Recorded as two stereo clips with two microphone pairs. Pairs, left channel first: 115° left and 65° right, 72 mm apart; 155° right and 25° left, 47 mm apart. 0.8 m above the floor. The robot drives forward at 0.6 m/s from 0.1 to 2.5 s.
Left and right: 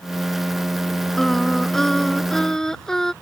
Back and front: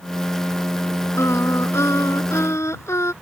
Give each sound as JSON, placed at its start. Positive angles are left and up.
{"t": 1.2, "sound": "singing", "azimuth_deg": -165}